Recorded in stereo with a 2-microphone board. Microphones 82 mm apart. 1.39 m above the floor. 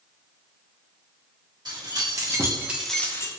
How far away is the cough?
No cough in this recording.